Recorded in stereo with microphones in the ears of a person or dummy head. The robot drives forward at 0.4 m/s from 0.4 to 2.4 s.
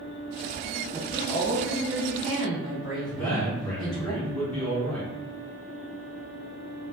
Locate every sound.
0.9 s a woman speaking: 10° right (ahead or behind), 0.6 m; by 4.1 s 5° right (ahead or behind), 1.2 m
3.1 s a man speaking: 5° left (ahead or behind), 1.8 m